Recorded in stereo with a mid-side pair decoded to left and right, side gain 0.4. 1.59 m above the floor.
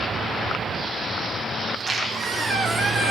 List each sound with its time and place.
1.7 s a squeak: 45° right, 1.8 m